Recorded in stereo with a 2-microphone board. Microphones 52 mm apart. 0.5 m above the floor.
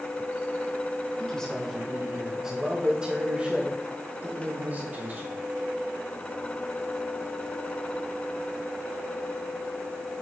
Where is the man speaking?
20° left (ahead or behind), 2 m; by 5.3 s 40° right (ahead or behind), 5 m.